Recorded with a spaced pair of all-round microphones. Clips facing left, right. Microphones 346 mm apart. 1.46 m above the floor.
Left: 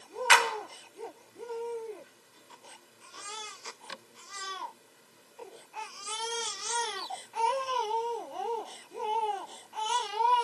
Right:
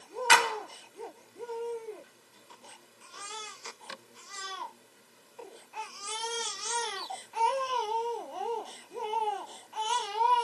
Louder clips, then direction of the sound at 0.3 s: Right 1 dB; 55° right (ahead or behind).